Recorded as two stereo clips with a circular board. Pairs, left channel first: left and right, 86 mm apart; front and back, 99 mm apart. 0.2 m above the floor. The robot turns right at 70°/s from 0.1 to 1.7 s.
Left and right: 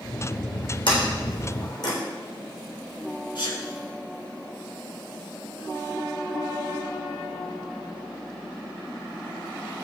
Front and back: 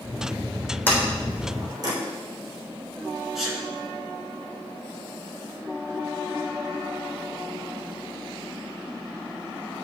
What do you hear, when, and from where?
0.9 s a sliding door: 70° left, 3.5 m; by 1.9 s 130° left, 3.5 m
3.4 s a sneeze: 95° left, 2.5 m